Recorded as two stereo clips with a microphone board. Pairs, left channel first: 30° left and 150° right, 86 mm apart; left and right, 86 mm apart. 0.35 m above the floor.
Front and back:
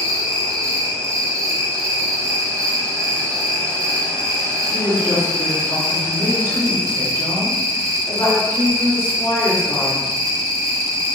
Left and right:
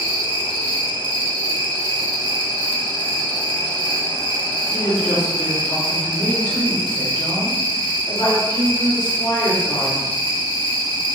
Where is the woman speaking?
80° left, 1.8 m.